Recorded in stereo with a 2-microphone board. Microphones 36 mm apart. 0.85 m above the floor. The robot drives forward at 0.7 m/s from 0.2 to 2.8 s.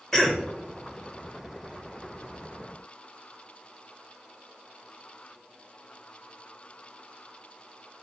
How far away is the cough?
About 0.6 m.